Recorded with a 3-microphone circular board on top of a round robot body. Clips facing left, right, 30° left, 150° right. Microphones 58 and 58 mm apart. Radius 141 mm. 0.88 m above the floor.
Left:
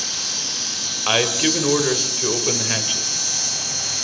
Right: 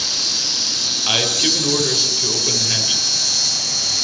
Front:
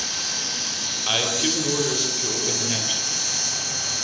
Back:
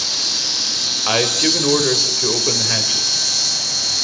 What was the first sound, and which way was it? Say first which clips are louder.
An insect: right 3 dB, back 3 dB; 120° right.